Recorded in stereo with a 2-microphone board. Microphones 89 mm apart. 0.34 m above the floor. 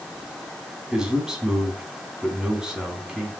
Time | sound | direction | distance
0.9 | a man speaking | 5° right (ahead or behind) | 3.5 m